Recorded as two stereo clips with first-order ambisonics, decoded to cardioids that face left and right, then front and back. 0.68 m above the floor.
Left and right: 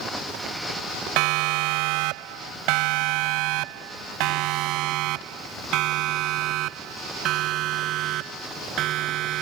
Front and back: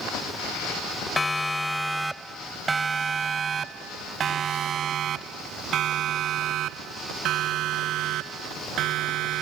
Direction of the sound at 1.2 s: 80° right.